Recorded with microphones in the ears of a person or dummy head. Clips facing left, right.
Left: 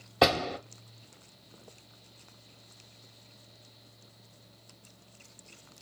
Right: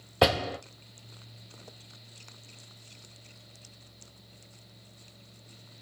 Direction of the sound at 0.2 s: 10° right (ahead or behind).